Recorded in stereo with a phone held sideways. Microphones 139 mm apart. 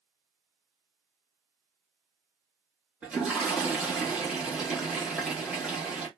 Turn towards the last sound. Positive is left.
turn(degrees=-10)  # may be behind; listen again after turning